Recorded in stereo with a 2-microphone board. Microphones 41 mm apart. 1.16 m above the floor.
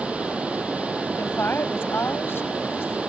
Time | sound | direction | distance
0.0 | running water | 30° right (ahead or behind) | ?
1.2 | a woman speaking | 75° left (ahead or behind) | ?